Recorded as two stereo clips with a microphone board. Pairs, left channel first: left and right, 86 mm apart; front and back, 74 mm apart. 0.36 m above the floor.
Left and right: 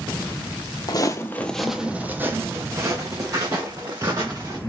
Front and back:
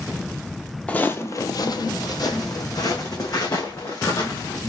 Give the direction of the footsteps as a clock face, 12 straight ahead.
10 o'clock.